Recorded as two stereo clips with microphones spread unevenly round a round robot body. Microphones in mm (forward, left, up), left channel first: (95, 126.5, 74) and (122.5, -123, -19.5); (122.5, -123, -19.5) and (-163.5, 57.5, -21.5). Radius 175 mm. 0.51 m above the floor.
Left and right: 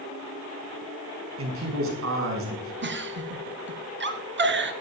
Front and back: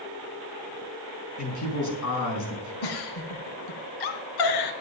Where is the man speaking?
70° right, 5 m.